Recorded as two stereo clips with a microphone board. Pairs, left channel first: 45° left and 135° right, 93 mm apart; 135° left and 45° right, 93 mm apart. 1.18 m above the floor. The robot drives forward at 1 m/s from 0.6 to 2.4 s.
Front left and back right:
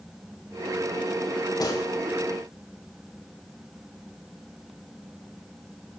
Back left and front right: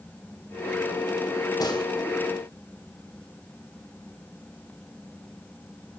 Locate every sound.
1.6 s a gunshot: 90° left, 5 m; by 1.9 s 95° left, 5 m